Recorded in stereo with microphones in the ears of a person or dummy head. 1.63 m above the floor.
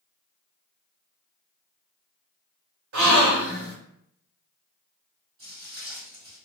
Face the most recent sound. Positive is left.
turn(degrees=-25)  # may be behind; listen again after turning